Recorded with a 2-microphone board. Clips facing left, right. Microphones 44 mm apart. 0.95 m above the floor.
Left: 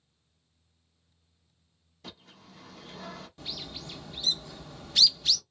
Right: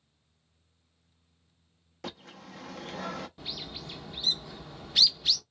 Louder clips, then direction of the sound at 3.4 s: Even; 10° right (ahead or behind).